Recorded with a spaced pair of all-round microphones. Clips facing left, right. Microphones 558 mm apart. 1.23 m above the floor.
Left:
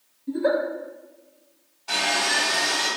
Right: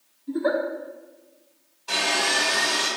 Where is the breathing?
No breathing in this recording.